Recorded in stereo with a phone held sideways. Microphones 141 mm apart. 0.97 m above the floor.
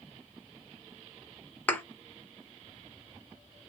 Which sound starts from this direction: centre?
A thud, at 1.7 s.